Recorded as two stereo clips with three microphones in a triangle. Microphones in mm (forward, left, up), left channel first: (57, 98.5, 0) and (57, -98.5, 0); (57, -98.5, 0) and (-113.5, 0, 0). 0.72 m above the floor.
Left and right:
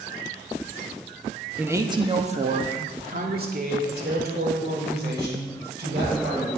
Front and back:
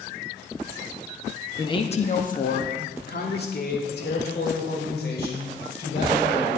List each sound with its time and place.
1.6 s a man speaking: 20° right, 0.9 m; by 6.5 s 60° right, 5 m